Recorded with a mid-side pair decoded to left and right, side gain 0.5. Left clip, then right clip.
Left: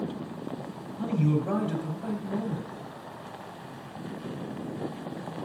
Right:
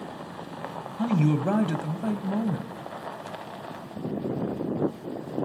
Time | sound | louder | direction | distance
1.0 | a man speaking | right 3 dB | 50° right | 0.9 m